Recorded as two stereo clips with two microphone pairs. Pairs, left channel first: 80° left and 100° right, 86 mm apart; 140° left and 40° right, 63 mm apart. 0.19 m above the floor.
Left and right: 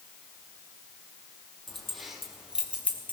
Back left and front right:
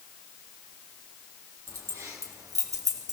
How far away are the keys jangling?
About 4 m.